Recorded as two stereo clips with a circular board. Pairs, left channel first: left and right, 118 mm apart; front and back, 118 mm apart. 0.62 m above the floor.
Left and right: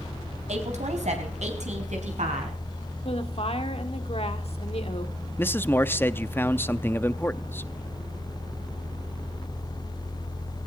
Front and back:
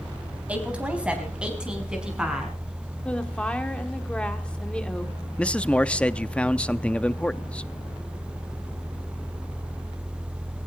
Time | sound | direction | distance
0.5 | a woman speaking | 100° right | 3.5 m
3.0 | a woman speaking | 80° left | 1.7 m
5.4 | a man speaking | 65° left | 0.5 m